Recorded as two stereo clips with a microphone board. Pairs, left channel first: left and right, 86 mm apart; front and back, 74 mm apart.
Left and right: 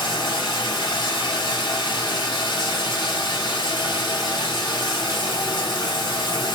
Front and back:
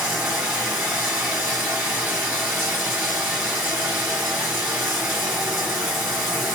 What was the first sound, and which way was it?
Running water, 115° left.